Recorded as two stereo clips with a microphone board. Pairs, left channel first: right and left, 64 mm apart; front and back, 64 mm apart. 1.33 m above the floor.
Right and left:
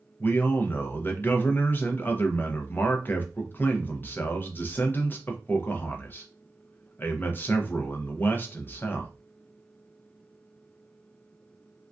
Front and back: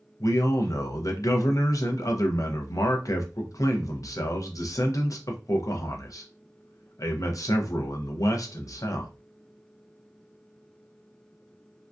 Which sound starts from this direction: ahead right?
A man speaking, at 0.2 s.